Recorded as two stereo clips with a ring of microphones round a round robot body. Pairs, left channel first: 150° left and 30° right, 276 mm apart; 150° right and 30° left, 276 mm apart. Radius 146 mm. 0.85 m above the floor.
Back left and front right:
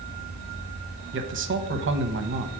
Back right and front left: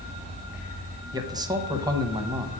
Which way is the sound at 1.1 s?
40° right.